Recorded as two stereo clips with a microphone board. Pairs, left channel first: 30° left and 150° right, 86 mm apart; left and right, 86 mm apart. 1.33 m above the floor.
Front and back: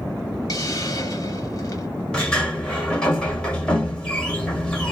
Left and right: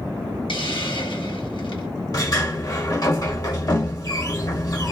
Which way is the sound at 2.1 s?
110° left.